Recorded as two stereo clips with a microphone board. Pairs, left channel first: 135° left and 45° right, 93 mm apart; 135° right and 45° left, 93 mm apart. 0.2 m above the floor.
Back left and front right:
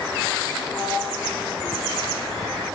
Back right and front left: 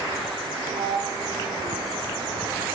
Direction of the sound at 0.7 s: 70° left.